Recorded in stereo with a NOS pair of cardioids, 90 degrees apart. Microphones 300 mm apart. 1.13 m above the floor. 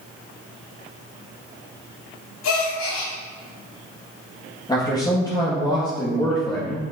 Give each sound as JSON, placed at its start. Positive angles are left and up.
{"t": 2.4, "sound": "a gasp", "azimuth_deg": 65, "distance_m": 2.5}
{"t": 4.7, "sound": "a man speaking", "azimuth_deg": 15, "distance_m": 1.9}